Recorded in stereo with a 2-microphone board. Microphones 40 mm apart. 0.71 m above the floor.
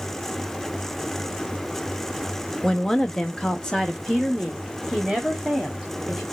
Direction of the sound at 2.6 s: 15° left (ahead or behind).